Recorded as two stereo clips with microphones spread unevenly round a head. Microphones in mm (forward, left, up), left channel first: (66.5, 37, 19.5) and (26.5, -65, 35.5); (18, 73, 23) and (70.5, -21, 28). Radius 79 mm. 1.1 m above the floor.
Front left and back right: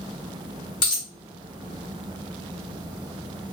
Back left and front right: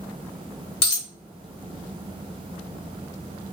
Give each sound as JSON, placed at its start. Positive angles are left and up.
{"t": 0.8, "sound": "a dropped coin", "azimuth_deg": 130, "distance_m": 0.9}